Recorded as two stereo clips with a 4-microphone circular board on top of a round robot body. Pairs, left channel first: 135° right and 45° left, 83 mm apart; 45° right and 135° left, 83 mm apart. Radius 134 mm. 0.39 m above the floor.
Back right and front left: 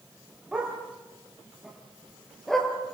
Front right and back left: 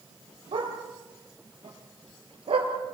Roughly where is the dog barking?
Behind left.